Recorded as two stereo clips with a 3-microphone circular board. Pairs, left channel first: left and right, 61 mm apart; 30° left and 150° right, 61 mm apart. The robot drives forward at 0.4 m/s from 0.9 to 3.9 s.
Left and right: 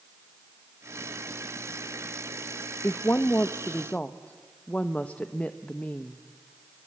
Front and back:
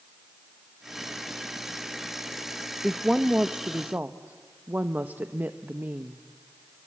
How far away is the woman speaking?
About 0.5 m.